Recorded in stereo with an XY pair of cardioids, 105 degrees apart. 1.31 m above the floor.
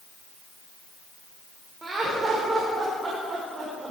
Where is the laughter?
20° right, 4.5 m.